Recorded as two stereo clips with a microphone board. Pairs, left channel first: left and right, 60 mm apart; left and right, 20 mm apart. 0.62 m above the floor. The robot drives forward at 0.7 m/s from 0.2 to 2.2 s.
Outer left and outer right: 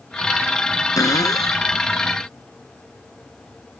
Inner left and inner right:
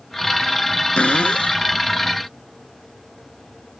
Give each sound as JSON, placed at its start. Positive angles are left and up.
{"t": 1.0, "sound": "a cupboard door", "side_deg": 85}